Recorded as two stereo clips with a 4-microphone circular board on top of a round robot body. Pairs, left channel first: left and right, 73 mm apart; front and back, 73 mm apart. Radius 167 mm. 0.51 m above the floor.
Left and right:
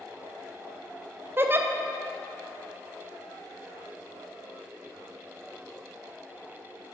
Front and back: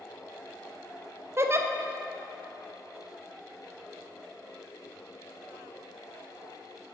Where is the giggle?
140° right, 0.9 m.